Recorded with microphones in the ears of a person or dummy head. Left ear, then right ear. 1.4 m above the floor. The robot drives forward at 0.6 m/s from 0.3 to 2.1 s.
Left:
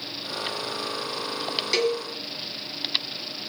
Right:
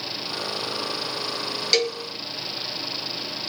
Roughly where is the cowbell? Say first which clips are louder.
Right 2 dB; right.